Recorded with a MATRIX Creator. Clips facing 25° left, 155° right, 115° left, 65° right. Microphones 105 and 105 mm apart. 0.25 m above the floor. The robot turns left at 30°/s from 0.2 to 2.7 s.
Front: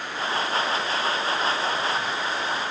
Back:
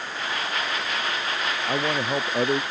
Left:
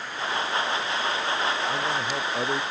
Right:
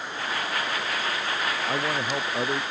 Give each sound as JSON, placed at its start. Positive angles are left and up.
{"t": 1.7, "sound": "a man speaking", "azimuth_deg": -130}